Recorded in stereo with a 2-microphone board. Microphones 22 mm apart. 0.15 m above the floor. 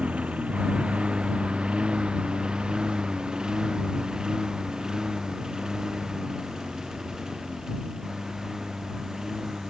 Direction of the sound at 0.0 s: 60° right (ahead or behind).